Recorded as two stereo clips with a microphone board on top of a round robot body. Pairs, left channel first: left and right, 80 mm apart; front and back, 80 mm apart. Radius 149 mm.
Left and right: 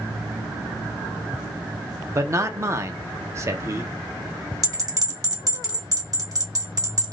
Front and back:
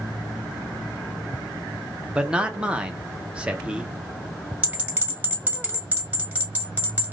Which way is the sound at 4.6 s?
115° right.